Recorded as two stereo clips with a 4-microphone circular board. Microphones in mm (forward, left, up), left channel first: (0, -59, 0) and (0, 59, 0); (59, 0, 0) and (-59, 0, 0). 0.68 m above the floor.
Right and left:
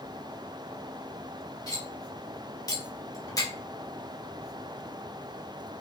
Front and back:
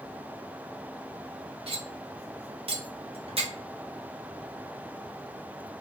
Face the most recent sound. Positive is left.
turn(degrees=-150)